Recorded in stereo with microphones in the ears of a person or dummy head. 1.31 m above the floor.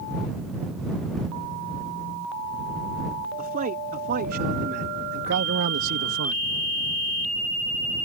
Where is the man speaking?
45° right (ahead or behind); by 6.4 s 80° right.